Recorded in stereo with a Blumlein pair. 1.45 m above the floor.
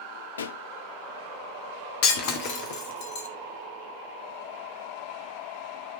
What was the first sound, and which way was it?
A pop, 70° left.